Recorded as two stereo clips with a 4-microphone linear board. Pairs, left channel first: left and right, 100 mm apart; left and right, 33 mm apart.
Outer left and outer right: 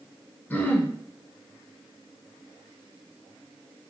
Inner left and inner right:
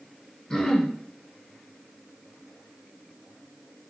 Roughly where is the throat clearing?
Centre.